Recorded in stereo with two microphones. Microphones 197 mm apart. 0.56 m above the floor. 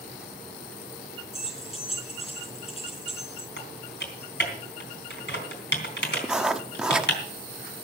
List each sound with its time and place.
1.3 s keys jangling: 35° left (ahead or behind), 4.5 m
3.6 s typing on a keyboard: 70° left (ahead or behind), 3.5 m
6.2 s writing: 5° right (ahead or behind), 0.9 m